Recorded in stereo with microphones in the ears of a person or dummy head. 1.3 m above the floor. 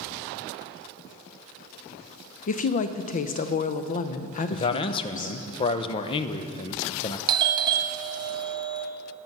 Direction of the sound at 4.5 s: 30° left (ahead or behind).